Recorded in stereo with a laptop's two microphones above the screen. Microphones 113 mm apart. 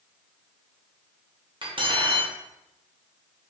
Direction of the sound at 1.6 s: 45° right (ahead or behind).